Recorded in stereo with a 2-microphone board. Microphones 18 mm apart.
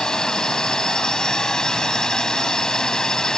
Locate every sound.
0.0 s a drone: 45° left (ahead or behind)